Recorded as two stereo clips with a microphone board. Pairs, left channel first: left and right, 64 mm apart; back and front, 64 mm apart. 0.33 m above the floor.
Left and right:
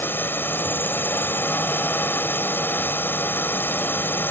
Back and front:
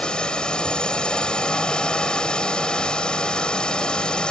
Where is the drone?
115° left.